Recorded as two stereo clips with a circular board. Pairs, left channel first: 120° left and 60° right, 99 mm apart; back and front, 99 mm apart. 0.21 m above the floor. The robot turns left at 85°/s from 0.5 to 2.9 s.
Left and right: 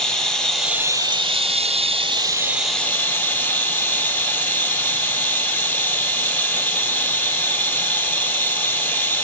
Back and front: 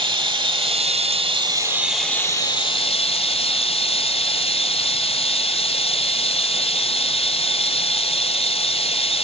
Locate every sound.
0.0 s running water: 35° left, 0.9 m; by 9.3 s 170° right, 0.9 m